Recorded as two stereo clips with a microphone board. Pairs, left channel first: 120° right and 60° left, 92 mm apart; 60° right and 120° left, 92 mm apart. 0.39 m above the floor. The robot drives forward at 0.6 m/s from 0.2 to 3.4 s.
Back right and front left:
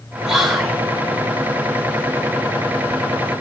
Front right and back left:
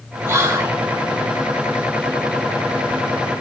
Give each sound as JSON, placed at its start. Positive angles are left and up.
{"t": 0.3, "sound": "whispering", "azimuth_deg": 140, "distance_m": 1.3}